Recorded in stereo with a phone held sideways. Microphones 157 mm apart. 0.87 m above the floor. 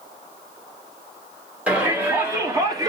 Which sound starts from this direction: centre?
A shout, at 1.7 s.